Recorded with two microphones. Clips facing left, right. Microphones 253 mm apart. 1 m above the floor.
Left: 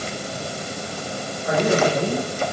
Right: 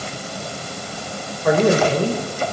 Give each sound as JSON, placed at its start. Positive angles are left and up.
{"t": 1.4, "sound": "a man speaking", "side_deg": -80, "distance_m": 4.5}